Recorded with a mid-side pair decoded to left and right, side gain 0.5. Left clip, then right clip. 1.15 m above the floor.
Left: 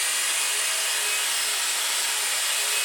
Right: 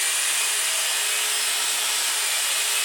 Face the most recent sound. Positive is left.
turn(degrees=-25)